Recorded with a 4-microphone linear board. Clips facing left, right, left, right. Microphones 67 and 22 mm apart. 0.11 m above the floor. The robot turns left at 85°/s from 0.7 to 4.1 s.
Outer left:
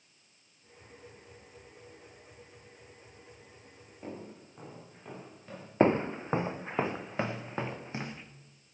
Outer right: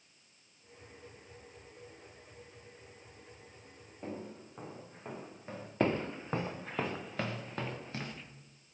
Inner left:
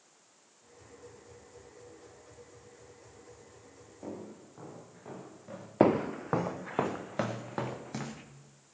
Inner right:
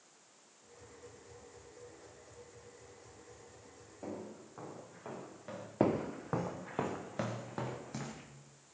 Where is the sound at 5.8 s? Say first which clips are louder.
Outer left 6 dB, inner left 7 dB; 30° left (ahead or behind), 0.6 m; by 8.2 s 20° left (ahead or behind), 2.5 m.